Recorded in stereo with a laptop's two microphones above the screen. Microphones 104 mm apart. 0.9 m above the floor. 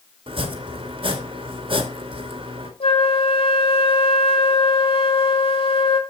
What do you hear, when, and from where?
0.3 s chopping: 60° right (ahead or behind), 1.9 m
2.8 s a flute: 70° left (ahead or behind), 1.8 m